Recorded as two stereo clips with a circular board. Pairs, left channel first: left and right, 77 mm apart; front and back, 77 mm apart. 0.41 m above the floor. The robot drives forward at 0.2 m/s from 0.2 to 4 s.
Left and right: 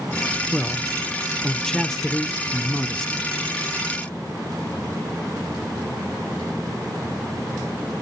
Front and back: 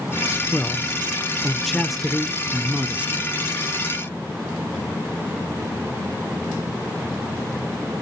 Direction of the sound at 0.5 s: 25° left.